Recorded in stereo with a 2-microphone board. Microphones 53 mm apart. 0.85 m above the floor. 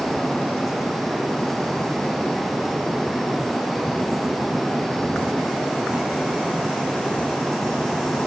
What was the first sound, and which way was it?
Only background noise.